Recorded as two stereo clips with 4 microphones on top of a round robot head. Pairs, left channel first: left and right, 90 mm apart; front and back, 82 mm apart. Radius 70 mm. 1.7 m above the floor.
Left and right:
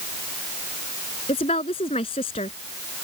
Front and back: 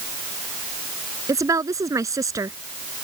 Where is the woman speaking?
135° left.